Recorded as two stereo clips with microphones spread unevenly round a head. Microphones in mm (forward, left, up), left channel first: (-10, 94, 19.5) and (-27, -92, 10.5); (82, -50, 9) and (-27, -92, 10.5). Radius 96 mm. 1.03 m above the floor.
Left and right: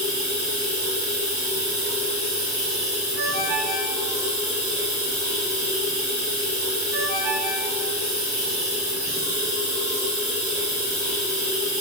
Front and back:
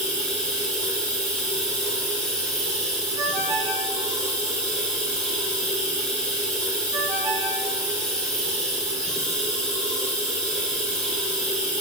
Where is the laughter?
No laughter in this recording.